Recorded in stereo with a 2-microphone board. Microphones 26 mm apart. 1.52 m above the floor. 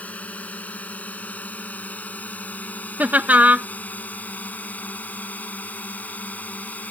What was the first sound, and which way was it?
A drone, 65° left (ahead or behind).